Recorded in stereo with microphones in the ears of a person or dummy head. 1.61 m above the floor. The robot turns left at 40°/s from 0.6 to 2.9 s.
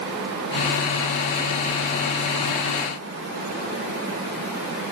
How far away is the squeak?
I don't hear a squeak.